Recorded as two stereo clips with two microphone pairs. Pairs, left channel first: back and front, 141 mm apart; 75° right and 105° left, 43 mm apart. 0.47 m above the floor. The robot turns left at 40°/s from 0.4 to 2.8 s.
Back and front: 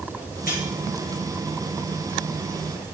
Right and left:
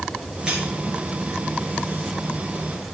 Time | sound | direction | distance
0.5 | cutlery clinking | straight behind | 4.5 m